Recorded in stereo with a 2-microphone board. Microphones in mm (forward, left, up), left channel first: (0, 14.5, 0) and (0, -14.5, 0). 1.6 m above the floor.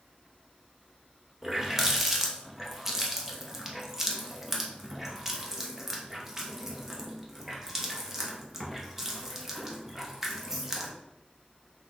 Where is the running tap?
10° right (ahead or behind), 1.0 m.